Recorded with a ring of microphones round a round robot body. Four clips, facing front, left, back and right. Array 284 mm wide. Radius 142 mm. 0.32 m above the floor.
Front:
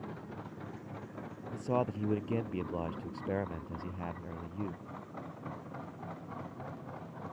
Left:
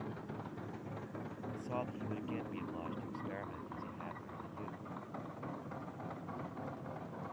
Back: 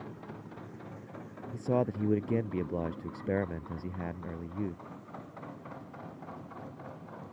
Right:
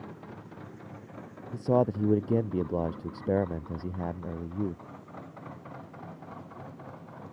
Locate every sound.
1.5 s a man speaking: 110° right